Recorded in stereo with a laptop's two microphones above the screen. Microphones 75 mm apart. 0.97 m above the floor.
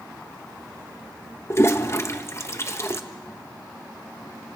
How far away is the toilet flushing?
About 1.2 m.